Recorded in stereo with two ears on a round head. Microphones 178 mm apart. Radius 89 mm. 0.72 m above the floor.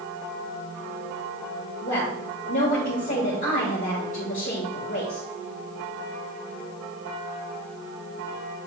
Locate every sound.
1.8 s a woman speaking: 40° left (ahead or behind), 2 m